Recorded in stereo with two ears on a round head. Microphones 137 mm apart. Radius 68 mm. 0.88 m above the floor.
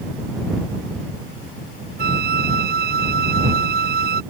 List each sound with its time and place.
2.0 s a flute: 65° right (ahead or behind)